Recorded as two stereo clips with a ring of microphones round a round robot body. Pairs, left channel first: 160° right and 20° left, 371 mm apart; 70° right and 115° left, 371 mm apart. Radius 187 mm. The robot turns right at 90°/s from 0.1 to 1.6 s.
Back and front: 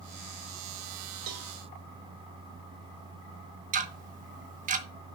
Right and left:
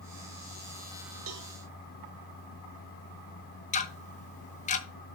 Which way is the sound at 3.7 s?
20° right.